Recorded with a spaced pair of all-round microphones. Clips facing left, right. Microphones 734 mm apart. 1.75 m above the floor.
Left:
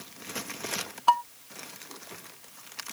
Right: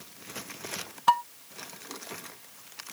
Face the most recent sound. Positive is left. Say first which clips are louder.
# left 1 dB
turn(degrees=-50)  # may be behind; listen again after turning